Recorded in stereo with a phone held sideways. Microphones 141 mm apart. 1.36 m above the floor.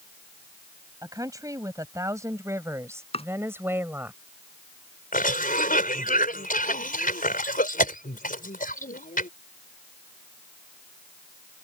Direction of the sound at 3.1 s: 45° left (ahead or behind).